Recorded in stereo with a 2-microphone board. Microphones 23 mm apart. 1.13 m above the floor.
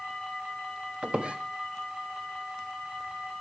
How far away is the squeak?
About 1.1 m.